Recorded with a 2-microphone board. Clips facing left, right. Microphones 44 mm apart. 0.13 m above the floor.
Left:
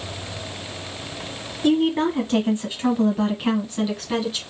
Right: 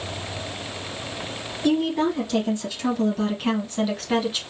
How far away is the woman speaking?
About 1.5 m.